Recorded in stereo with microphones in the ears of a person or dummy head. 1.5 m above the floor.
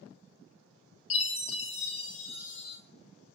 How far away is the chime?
About 0.5 m.